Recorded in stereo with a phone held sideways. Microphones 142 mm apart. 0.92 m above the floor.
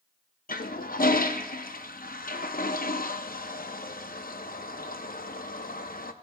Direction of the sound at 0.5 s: 80° left.